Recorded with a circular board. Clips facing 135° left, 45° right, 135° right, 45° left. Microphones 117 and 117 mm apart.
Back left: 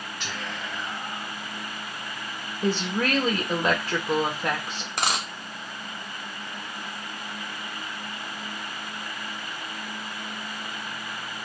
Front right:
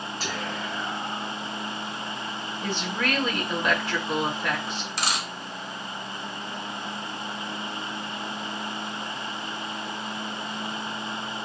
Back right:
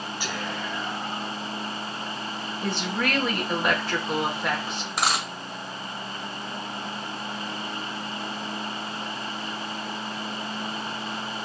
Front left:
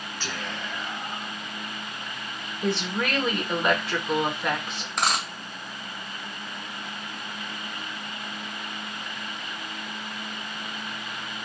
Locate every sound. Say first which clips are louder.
0.2 s whispering: front right 3 dB, back right 2 dB; 65° right, 1.0 m
2.6 s a woman speaking: back left 4 dB, front left 1 dB; 135° left, 1.0 m
5.0 s a dropped coin: back left 3 dB, even; 140° left, 0.8 m